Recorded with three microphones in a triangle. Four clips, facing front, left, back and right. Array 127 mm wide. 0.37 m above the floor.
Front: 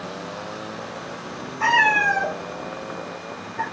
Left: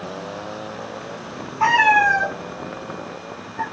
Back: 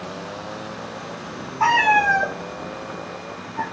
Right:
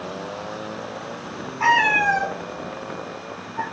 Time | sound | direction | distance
1.6 | a cat meowing | 170° left | 1.8 m